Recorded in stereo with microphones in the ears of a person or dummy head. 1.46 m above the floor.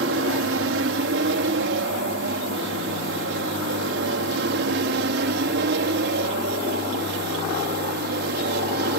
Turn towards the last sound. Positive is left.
turn(degrees=-65)  # may be behind; listen again after turning